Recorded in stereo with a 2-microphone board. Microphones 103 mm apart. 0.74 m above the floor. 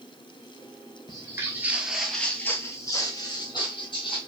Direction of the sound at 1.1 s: 35° right (ahead or behind).